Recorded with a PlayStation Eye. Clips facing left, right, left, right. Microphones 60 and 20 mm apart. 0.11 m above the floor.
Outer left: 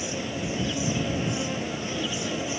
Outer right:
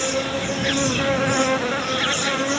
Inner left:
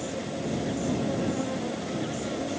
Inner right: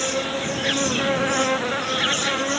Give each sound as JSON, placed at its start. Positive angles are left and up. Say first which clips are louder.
{"t": 0.0, "sound": "an insect", "louder": "outer right 8 dB, inner right 8 dB", "side_deg": -75}